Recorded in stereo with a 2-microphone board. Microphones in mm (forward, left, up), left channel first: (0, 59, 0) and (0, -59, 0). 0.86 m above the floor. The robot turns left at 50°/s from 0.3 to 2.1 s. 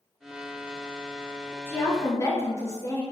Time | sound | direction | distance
1.7 | a woman speaking | 20° left (ahead or behind) | 0.6 m